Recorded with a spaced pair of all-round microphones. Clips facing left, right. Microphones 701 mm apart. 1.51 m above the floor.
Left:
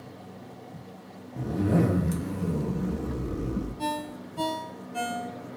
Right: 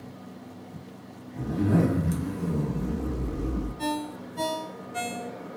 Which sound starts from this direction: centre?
A zipper, at 1.4 s.